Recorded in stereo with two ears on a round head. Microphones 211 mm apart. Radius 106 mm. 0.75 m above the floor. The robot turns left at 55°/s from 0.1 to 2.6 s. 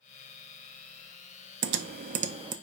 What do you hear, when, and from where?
1.6 s typing on a keyboard: 55° right (ahead or behind), 0.6 m; by 2.5 s 20° right (ahead or behind), 0.6 m